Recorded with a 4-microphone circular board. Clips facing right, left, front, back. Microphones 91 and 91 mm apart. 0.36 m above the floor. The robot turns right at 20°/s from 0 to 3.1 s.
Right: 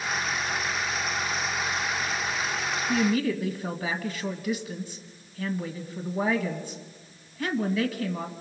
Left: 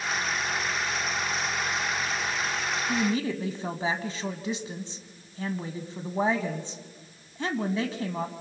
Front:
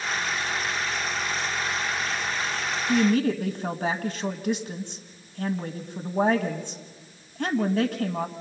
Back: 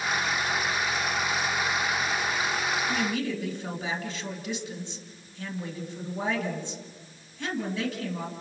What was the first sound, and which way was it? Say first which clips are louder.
A woman speaking: right 3 dB, front 7 dB; 25° left.